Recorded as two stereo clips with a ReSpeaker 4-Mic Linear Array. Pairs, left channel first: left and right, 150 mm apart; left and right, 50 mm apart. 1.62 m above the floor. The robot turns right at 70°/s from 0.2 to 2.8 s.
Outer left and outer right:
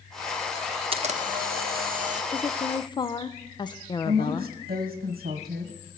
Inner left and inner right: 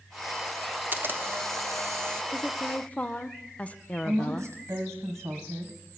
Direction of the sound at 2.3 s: 15° left.